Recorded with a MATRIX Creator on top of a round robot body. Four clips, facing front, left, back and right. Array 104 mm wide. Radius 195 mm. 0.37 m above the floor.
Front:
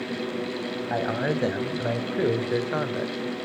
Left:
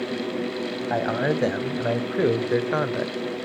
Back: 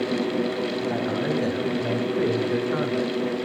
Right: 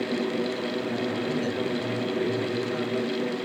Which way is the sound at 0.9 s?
70° left.